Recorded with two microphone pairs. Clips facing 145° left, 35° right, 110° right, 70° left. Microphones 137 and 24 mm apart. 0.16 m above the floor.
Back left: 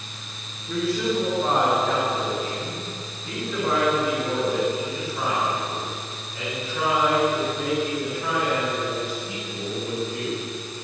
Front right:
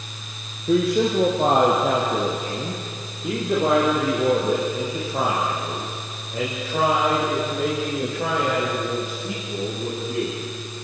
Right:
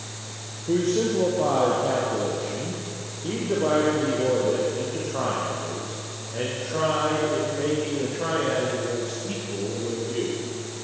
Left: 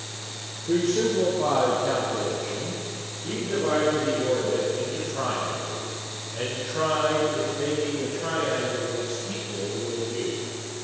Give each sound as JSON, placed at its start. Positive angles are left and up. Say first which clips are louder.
{"t": 0.7, "sound": "a man speaking", "louder": "front right 5 dB, even", "azimuth_deg": -25, "distance_m": 5.0}